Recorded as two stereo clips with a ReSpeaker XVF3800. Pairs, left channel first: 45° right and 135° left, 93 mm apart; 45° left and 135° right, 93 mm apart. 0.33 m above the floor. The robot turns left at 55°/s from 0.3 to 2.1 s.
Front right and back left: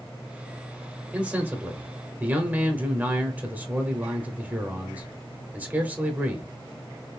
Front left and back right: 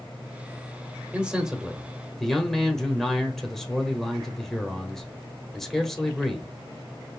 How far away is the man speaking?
About 0.9 m.